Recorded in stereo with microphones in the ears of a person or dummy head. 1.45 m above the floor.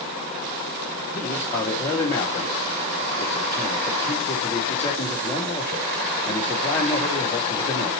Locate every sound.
1.1 s a man speaking: 30° left (ahead or behind), 4.5 m